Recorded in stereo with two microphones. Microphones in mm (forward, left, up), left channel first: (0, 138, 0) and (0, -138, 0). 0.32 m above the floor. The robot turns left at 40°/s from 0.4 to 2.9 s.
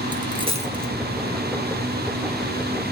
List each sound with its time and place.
0.1 s a dropped coin: 15° right (ahead or behind), 1.5 m; by 0.9 s 35° right (ahead or behind), 1.5 m